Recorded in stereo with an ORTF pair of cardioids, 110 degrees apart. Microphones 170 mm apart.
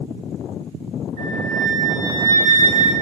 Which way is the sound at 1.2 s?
45° right.